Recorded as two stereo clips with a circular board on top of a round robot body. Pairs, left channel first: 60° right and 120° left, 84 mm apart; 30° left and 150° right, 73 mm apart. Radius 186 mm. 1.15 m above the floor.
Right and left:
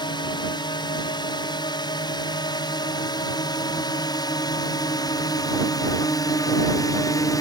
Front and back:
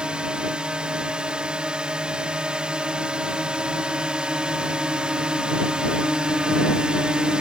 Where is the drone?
75° right.